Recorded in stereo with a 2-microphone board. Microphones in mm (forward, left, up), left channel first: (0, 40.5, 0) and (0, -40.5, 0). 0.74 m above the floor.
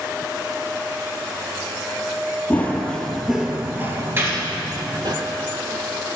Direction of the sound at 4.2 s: 30° right (ahead or behind).